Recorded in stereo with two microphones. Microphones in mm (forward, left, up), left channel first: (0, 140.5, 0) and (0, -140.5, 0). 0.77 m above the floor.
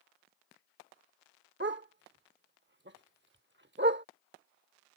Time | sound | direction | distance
1.6 | a dog barking | 40° right (ahead or behind) | ?